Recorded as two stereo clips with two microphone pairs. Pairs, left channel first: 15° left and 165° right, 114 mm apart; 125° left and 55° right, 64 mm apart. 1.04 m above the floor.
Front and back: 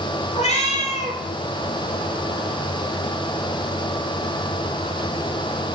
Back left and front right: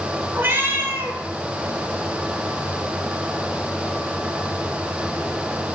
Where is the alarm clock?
No alarm clock in this recording.